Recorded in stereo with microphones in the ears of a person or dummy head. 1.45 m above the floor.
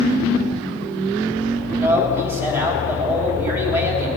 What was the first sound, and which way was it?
A man speaking, 10° right (ahead or behind).